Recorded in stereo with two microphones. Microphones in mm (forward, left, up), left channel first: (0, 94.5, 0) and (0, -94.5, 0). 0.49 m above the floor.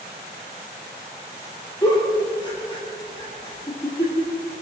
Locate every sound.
1.8 s a giggle: 25° left (ahead or behind), 7.5 m